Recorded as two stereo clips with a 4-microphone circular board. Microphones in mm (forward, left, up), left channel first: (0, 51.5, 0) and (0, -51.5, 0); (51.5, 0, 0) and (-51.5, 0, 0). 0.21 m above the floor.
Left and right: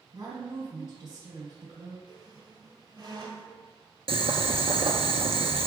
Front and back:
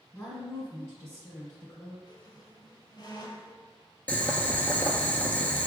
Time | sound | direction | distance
0.1 | a woman speaking | 55° right | 1.8 m
2.1 | a squeak | 40° right | 2.5 m
4.1 | boiling | 75° right | 0.8 m